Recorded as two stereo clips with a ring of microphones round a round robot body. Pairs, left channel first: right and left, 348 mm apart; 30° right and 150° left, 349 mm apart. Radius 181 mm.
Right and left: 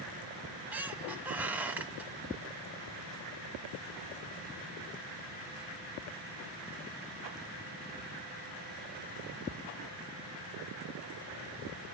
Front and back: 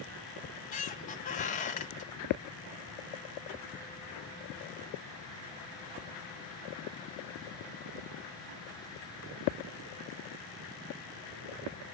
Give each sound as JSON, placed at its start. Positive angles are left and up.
{"t": 0.4, "sound": "a squeak", "azimuth_deg": 10, "distance_m": 0.6}